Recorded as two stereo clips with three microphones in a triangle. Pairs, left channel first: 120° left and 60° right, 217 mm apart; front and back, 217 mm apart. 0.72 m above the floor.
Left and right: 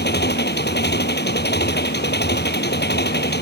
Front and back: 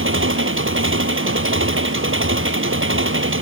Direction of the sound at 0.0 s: 160° left.